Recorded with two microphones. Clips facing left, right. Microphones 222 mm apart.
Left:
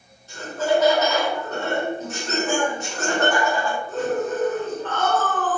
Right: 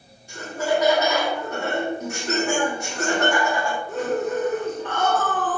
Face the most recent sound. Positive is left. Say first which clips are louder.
# left 2 dB
turn(degrees=-10)  # may be behind; listen again after turning